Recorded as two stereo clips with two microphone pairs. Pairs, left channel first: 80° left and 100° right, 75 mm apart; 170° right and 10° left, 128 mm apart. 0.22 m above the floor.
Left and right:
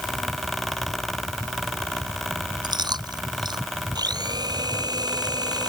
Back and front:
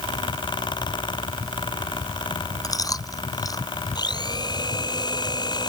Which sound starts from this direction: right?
Chewing, at 2.6 s.